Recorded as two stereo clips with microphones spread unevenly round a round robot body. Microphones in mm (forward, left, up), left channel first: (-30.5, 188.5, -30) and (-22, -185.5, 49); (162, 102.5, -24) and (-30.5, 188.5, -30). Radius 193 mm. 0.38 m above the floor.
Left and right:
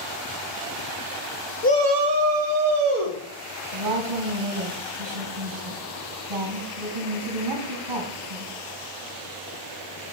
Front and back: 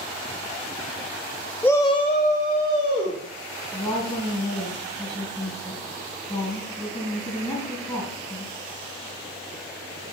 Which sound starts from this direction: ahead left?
A shout, at 1.6 s.